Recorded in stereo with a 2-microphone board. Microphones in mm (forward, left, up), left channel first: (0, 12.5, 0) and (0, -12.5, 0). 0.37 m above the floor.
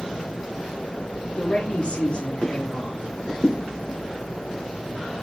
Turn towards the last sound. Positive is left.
turn(degrees=55)  # may be behind; listen again after turning